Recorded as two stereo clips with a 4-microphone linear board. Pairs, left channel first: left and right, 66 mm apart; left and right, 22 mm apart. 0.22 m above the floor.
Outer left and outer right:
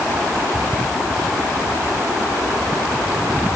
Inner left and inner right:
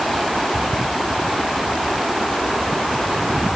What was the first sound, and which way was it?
Only background noise.